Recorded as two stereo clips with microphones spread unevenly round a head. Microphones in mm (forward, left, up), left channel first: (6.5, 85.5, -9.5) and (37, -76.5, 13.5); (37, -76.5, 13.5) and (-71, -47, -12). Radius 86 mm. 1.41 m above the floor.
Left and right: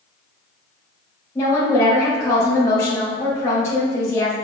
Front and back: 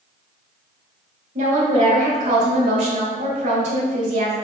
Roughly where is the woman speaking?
Behind.